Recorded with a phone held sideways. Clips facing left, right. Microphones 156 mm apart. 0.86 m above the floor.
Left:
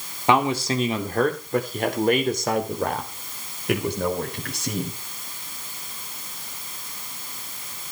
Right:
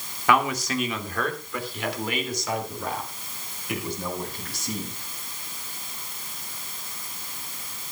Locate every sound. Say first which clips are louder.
0.3 s a man speaking: left 3 dB; 25° left (ahead or behind), 2.5 m; by 5.0 s 75° left (ahead or behind), 4 m